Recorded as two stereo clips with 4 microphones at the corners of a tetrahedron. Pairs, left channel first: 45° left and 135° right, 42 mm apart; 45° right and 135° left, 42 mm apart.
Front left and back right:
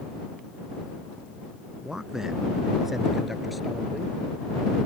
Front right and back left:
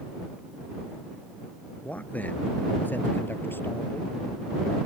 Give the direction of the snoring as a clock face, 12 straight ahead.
I don't hear snoring.